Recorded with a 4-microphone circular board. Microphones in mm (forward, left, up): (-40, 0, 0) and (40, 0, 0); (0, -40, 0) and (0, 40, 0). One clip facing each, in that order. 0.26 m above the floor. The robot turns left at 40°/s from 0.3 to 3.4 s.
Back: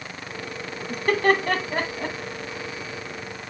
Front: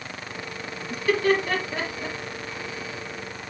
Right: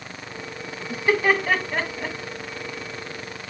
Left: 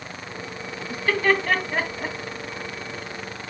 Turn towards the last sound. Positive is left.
turn(degrees=110)